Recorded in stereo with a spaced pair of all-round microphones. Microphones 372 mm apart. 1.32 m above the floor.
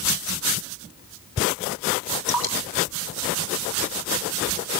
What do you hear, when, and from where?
2.3 s dripping: 80° left, 3.5 m